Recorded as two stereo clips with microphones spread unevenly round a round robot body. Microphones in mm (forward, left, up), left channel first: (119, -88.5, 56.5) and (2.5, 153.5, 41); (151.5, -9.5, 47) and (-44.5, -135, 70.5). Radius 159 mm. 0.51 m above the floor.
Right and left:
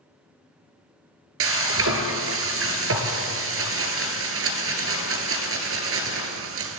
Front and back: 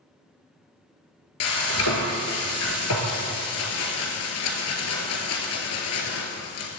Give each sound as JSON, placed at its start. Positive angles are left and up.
{"t": 1.4, "sound": "frying", "azimuth_deg": 75, "distance_m": 1.8}